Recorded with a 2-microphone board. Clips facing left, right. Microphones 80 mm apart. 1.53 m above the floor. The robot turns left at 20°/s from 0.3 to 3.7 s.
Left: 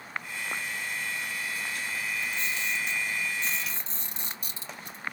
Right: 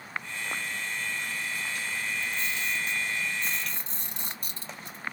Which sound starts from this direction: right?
A camera shutter, at 2.2 s.